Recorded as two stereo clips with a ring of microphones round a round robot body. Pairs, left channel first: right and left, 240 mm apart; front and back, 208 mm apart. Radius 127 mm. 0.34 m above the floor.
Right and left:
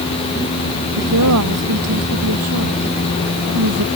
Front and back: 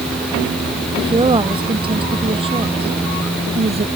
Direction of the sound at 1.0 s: 115° left.